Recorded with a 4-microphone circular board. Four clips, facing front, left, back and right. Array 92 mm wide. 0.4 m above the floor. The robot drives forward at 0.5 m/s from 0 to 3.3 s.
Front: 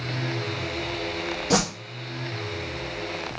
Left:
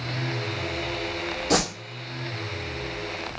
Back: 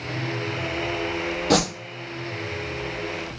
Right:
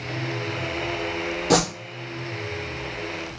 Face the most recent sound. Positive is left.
turn(degrees=-140)